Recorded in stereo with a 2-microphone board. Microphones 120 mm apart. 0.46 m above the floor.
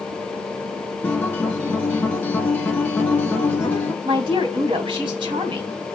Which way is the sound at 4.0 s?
40° right (ahead or behind).